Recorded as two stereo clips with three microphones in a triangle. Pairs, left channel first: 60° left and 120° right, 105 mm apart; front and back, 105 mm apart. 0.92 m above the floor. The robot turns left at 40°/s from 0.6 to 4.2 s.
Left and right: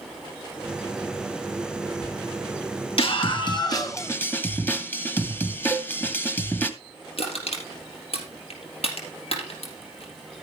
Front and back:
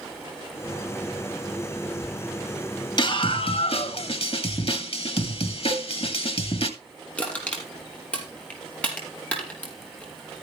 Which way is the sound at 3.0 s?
40° left.